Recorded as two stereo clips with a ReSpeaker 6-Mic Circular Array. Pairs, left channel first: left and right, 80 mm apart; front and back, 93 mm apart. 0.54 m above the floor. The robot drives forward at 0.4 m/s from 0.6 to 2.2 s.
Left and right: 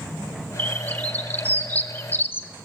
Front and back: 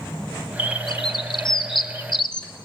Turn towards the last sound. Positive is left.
turn(degrees=30)